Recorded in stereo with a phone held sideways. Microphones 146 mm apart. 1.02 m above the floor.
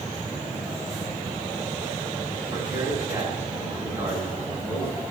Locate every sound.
2.5 s a man speaking: 15° right (ahead or behind), 7.5 m